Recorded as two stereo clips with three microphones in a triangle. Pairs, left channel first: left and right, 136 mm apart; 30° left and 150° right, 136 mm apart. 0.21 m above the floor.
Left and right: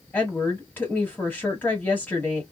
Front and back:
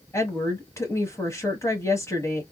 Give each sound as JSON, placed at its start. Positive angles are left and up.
{"t": 0.1, "sound": "a woman speaking", "azimuth_deg": 40, "distance_m": 1.3}